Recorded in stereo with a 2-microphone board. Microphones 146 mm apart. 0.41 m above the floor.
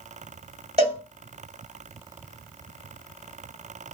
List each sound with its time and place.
0.8 s a cowbell: 45° right (ahead or behind), 1.1 m